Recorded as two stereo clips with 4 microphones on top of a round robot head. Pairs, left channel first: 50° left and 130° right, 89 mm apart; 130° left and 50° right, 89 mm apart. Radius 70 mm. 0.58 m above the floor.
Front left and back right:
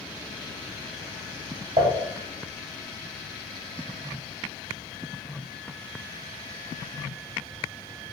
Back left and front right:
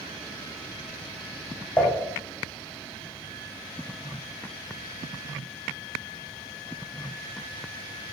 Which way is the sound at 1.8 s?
160° right.